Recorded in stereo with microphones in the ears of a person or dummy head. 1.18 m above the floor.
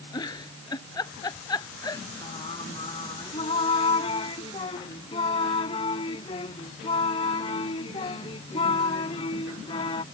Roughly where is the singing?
Left.